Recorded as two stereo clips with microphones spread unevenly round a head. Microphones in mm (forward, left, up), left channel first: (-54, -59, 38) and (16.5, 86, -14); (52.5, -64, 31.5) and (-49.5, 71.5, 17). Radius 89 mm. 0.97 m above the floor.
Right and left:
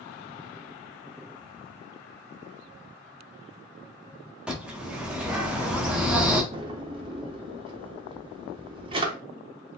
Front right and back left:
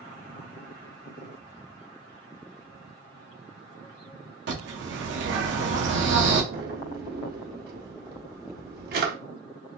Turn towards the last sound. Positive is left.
turn(degrees=135)